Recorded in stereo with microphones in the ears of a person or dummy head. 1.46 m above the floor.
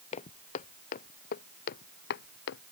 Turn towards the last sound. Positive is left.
turn(degrees=60)  # may be behind; listen again after turning